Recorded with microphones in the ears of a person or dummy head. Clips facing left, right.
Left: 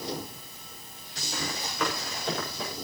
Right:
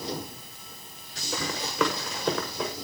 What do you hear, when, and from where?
1.3 s running footsteps: 70° right (ahead or behind), 7.5 m; by 2.7 s 55° right (ahead or behind), 7.5 m